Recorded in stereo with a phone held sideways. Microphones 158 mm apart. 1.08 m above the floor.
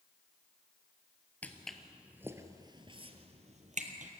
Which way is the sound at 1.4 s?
10° left (ahead or behind).